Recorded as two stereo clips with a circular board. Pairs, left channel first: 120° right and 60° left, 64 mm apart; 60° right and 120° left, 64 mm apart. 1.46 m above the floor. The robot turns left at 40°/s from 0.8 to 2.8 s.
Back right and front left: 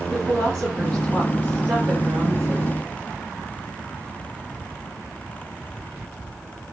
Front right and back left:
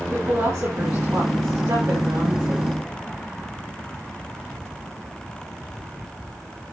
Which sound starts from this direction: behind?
A woman speaking, at 0.1 s.